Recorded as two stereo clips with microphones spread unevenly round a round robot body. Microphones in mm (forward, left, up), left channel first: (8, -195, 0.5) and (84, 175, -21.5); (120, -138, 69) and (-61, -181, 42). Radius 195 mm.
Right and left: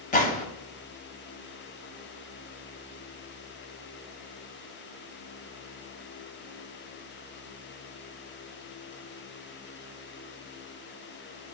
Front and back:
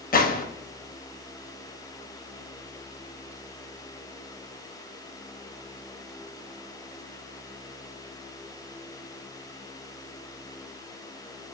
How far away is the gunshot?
About 0.6 m.